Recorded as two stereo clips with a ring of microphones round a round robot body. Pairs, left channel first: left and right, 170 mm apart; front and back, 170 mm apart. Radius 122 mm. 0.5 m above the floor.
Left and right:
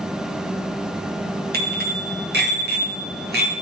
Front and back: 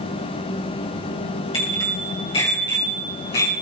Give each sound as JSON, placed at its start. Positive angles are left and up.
{"t": 1.5, "sound": "a bicycle bell", "azimuth_deg": -70, "distance_m": 5.0}